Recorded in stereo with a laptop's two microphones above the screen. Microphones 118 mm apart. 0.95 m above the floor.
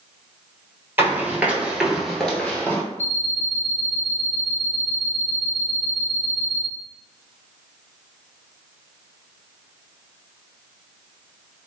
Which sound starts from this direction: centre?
Running footsteps, at 1.0 s.